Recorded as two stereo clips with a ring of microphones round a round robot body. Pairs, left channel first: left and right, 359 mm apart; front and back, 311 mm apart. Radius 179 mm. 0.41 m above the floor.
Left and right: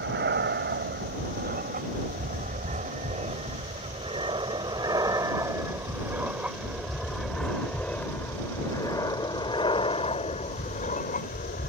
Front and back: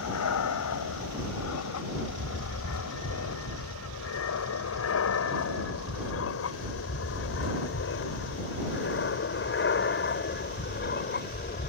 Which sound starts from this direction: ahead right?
An aircraft, at 0.0 s.